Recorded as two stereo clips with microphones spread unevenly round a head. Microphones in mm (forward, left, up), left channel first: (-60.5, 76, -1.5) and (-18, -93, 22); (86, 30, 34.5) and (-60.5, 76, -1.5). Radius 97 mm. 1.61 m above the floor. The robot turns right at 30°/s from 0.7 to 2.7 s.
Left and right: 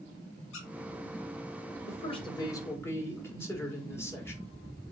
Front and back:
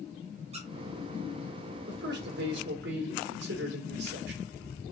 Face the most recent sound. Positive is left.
turn(degrees=180)